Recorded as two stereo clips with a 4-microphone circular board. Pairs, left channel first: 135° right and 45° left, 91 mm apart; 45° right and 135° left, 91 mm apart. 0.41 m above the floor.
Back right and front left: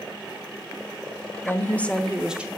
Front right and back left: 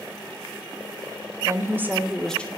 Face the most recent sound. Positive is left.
turn(degrees=0)